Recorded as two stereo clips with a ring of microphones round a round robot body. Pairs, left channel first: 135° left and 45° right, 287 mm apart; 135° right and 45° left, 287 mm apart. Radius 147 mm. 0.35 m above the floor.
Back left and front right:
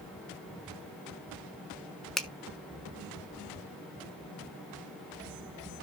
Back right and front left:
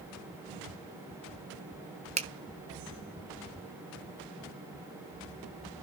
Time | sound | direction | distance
2.2 | a finger snap | 50° left | 1.2 m